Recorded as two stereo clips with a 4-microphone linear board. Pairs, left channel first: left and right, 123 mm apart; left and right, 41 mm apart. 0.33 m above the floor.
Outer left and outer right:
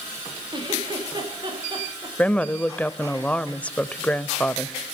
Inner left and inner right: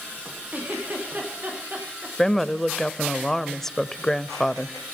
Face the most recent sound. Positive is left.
turn(degrees=10)  # may be behind; listen again after turning